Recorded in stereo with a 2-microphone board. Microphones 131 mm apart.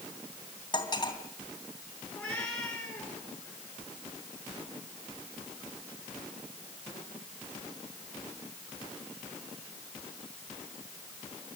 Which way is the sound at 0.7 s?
30° left (ahead or behind).